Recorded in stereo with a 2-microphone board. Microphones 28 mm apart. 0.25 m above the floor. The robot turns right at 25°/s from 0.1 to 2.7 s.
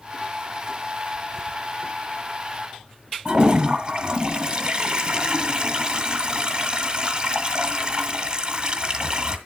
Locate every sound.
3.2 s a toilet flushing: 30° right (ahead or behind), 1.5 m